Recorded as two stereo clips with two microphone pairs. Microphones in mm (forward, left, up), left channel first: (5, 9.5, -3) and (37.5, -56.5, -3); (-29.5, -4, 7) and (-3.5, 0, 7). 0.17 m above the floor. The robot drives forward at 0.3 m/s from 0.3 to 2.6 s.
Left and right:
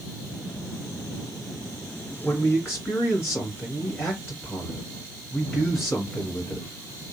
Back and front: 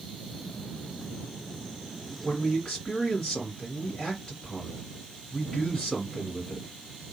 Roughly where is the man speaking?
Behind left.